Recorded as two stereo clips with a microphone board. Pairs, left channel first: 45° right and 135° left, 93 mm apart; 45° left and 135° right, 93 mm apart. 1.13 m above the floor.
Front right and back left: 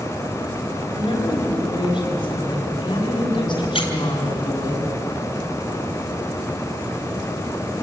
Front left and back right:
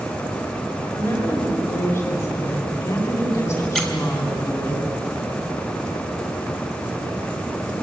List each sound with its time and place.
0.9 s a woman speaking: 10° right, 7.5 m
3.8 s a squeak: 40° right, 3 m